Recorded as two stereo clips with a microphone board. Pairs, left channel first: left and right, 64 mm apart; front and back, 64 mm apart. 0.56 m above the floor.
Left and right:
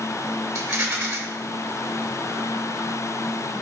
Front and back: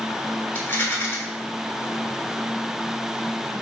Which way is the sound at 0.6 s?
55° right.